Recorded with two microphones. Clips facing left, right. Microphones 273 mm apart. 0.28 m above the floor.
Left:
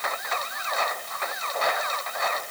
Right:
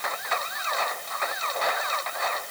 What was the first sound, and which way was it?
Only background noise.